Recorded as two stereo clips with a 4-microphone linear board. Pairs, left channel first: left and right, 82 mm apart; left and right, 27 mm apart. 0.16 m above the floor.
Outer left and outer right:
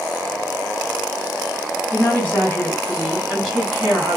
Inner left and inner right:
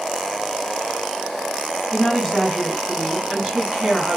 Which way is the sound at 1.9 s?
25° left (ahead or behind).